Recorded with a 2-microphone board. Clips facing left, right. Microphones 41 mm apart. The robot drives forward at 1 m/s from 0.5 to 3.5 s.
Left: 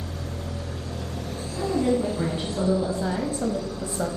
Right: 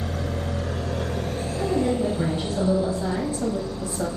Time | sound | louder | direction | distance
0.0 | an engine running | right 6 dB | 65° right (ahead or behind) | 0.8 m
1.6 | a woman speaking | even | 10° left (ahead or behind) | 2.5 m